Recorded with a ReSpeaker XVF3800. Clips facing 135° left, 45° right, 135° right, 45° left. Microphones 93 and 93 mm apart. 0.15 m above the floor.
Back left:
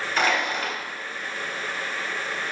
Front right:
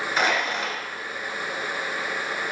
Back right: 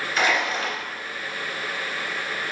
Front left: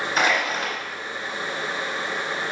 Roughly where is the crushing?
Ahead left.